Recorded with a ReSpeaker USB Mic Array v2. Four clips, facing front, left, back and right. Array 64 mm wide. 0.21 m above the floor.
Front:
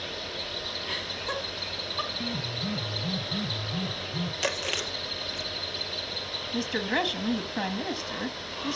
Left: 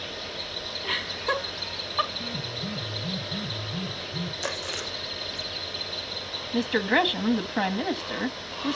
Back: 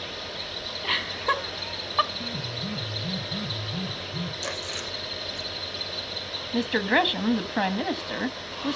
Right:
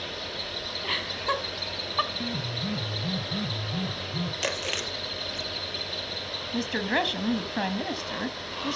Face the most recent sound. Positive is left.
turn(degrees=155)